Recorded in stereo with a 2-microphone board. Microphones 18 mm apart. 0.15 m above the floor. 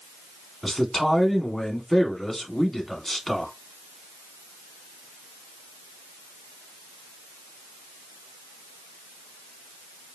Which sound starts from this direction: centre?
A man speaking, at 0.6 s.